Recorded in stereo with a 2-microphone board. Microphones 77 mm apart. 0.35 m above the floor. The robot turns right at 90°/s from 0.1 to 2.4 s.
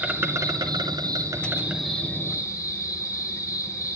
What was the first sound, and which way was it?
An insect, 160° right.